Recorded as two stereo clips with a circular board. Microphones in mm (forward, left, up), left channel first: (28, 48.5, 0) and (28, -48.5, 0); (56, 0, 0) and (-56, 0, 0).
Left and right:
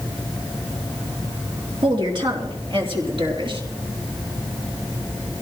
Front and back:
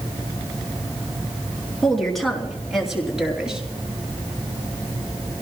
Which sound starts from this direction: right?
A woman speaking, at 1.8 s.